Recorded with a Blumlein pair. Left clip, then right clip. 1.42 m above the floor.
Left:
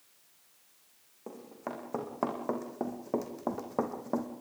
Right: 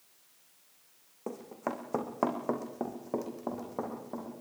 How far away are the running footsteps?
About 4.5 m.